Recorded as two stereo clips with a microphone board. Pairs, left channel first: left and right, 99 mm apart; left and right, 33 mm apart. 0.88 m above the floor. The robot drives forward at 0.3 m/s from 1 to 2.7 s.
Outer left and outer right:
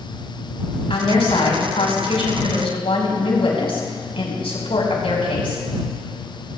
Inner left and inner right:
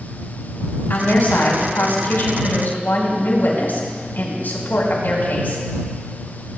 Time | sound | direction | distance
0.9 | a woman speaking | 75° left (ahead or behind) | 5.5 m